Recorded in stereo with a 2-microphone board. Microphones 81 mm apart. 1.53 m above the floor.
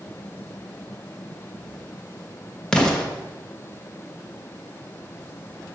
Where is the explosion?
10° left (ahead or behind), 1.0 m.